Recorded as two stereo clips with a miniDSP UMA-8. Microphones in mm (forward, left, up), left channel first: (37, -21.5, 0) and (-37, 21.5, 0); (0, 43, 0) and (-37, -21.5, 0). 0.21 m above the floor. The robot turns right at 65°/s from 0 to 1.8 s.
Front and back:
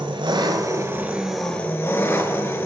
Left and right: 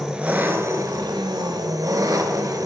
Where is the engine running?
150° left, 0.9 m; by 2.7 s 95° right, 0.9 m.